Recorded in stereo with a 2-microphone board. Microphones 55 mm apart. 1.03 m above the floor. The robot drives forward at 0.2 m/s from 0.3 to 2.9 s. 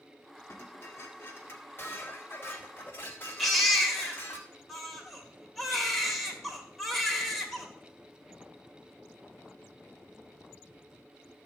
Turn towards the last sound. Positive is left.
turn(degrees=5)  # may be behind; listen again after turning